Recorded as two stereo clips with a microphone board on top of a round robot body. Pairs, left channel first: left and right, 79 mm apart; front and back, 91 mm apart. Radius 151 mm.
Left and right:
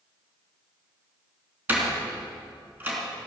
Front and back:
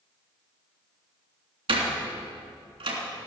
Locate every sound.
1.7 s a door slam: 155° right, 3 m